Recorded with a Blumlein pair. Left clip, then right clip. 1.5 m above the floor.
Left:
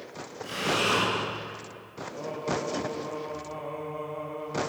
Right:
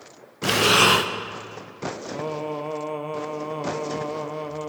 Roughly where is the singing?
Ahead right.